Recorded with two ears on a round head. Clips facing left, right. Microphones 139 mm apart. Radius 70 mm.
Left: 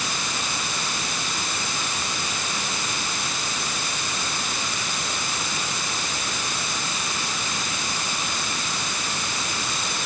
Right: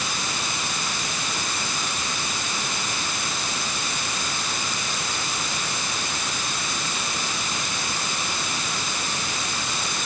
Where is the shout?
No shout in this recording.